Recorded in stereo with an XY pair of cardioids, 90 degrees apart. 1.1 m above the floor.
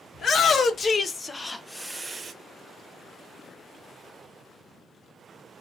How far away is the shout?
About 1.3 m.